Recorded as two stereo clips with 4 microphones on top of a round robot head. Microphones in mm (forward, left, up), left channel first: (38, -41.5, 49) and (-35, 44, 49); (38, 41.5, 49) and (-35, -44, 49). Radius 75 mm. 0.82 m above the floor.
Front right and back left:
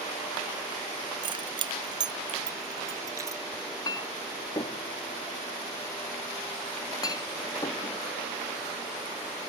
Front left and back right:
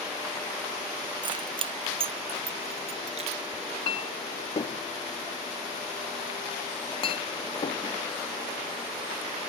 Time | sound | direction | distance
1.2 | keys jangling | straight behind | ?
3.5 | a clink | 5° left | ?